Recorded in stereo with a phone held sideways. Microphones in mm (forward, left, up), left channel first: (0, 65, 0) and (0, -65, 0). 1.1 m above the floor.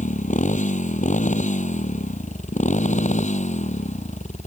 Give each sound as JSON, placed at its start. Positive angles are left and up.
{"t": 0.0, "sound": "a motorcycle", "side_deg": 85}